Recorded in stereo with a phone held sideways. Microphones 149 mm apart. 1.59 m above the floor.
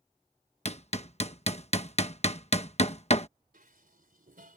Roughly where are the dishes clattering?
Right.